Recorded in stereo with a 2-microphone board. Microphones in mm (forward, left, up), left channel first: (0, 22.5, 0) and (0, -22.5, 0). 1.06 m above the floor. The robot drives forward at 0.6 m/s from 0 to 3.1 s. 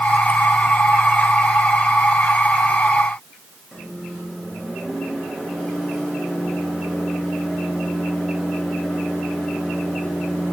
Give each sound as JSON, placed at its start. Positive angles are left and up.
{"t": 3.7, "sound": "a microwave", "side_deg": 5, "distance_m": 5.5}